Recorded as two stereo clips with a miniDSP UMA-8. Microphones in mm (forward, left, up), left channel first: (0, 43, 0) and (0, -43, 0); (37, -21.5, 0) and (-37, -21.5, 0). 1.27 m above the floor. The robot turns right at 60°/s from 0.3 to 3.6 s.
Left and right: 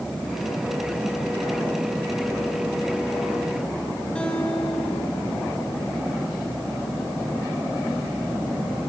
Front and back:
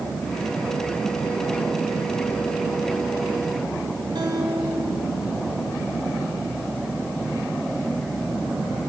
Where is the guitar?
170° left, 5 m.